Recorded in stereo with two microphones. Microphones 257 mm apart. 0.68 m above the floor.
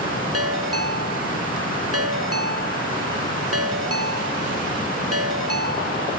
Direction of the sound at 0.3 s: 65° right (ahead or behind).